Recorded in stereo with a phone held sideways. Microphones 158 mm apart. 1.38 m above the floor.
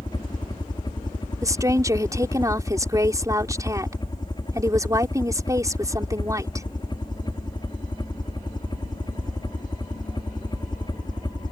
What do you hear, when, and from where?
0.0 s a helicopter: 30° left (ahead or behind)
1.4 s a woman speaking: 20° right (ahead or behind)